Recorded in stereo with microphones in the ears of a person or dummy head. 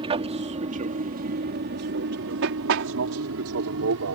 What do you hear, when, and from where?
0.0 s an aircraft: 25° right (ahead or behind); by 4.1 s 70° right (ahead or behind)